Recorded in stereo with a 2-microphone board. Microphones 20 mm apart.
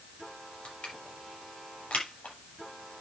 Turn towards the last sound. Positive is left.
turn(degrees=80)